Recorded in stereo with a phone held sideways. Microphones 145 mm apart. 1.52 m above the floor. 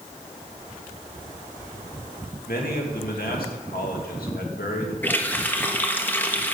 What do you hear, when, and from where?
2.5 s a man speaking: 85° left, 2.5 m
5.0 s a running tap: 10° left (ahead or behind), 1.3 m